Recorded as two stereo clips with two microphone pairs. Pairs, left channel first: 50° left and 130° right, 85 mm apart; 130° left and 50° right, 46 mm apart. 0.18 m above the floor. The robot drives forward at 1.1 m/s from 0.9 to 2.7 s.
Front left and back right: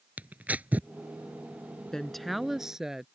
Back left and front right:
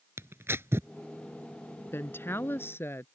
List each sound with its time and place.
0.2 s tearing paper: 60° right
1.9 s a woman speaking: 130° left; by 3.1 s 145° left